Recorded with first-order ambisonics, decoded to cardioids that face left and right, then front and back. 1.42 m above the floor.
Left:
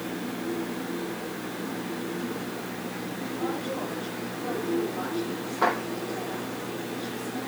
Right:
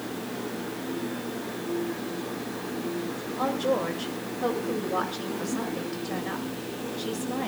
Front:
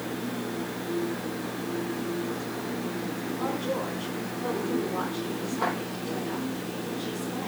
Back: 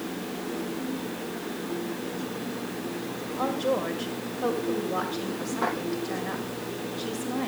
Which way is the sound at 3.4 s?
130° right.